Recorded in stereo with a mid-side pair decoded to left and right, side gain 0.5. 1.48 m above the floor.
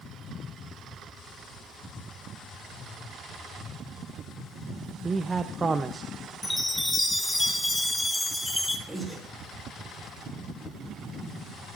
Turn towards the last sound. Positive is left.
turn(degrees=0)